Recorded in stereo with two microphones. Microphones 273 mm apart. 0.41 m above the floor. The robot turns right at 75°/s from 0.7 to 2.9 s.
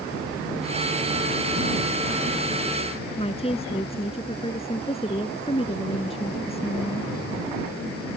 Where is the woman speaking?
20° left (ahead or behind).